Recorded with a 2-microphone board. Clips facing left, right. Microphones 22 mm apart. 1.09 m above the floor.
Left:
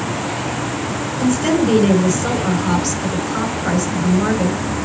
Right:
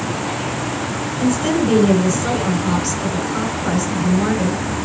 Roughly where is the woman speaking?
Centre.